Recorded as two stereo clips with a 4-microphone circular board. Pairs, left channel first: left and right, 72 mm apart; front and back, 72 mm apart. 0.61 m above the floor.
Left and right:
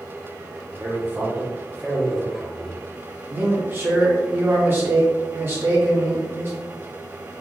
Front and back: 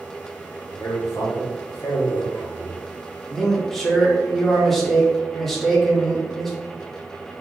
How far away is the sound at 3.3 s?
About 1.3 m.